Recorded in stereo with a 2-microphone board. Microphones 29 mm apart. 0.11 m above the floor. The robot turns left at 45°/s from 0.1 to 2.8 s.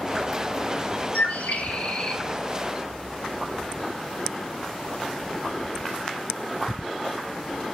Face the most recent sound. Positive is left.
turn(degrees=0)